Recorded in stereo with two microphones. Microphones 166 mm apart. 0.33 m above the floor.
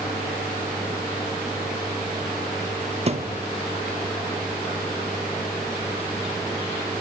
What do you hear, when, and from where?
3.1 s a thud: 40° right (ahead or behind), 0.6 m